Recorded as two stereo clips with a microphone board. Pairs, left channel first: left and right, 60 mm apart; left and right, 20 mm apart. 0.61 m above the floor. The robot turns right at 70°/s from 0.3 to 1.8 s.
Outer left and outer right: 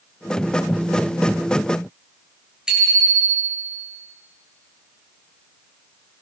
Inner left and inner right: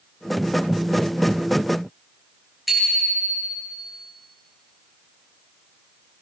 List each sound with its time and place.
2.7 s a bicycle bell: 10° right (ahead or behind), 8 m